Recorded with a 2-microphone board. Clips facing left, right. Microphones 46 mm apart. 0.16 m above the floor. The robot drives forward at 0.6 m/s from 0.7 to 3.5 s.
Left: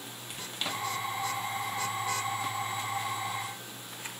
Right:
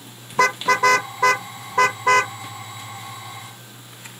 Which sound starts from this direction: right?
A car horn, at 0.3 s.